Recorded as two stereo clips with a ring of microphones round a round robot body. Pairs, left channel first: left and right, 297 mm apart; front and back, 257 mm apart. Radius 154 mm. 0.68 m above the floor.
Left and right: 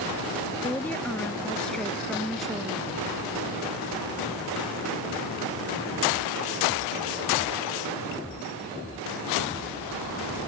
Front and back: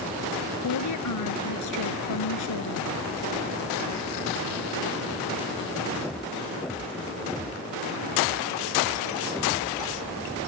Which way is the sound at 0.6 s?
5° left.